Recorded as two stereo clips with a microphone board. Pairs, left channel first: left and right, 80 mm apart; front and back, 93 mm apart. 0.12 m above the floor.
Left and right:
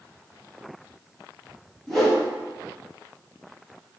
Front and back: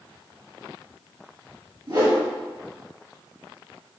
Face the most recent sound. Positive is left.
turn(degrees=175)